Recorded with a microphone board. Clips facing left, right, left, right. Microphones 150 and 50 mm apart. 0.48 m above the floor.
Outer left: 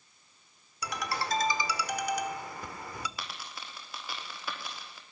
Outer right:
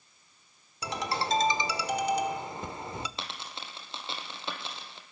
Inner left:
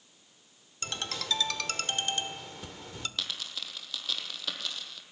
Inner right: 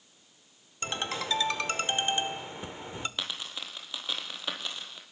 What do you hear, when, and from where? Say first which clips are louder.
0.8 s a ringtone: outer right 3 dB, inner right 3 dB; 25° right (ahead or behind), 1.1 m
3.2 s a dropped coin: outer right 2 dB, inner right 1 dB; 25° right (ahead or behind), 3 m